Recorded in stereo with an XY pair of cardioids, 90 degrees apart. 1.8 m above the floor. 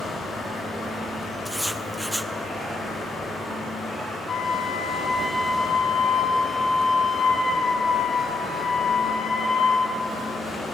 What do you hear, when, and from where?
0.0 s running water: 55° left, 6 m
1.4 s writing: 5° right, 0.6 m
4.3 s a flute: 55° left, 6 m